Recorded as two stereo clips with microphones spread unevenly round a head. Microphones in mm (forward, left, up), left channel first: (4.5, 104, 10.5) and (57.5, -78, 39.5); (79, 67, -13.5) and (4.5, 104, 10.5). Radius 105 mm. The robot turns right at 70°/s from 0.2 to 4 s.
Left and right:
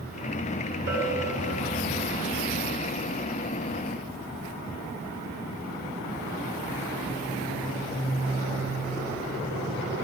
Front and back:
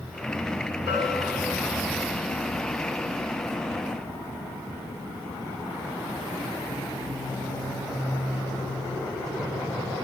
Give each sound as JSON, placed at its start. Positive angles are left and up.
{"t": 0.9, "sound": "a bell", "azimuth_deg": 90, "distance_m": 7.0}